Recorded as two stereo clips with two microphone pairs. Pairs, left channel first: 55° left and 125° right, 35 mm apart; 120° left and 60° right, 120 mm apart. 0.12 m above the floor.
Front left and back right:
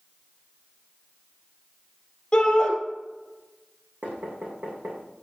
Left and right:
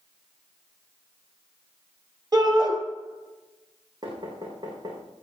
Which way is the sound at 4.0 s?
115° right.